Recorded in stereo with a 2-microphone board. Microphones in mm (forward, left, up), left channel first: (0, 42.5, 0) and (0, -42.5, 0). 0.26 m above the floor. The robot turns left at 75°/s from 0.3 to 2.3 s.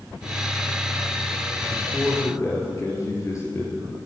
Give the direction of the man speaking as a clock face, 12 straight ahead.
6 o'clock.